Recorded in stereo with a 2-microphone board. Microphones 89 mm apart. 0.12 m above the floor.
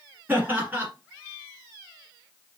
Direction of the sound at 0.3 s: 20° right (ahead or behind).